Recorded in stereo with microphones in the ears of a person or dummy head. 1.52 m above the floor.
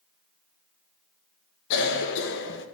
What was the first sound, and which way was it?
A cough, 60° left (ahead or behind).